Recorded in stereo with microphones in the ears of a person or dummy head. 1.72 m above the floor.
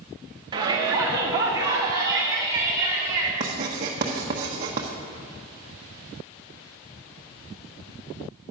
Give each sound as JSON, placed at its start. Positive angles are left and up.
{"t": 0.5, "sound": "a shout", "side_deg": -25, "distance_m": 1.0}
{"t": 3.4, "sound": "writing", "side_deg": -25, "distance_m": 1.0}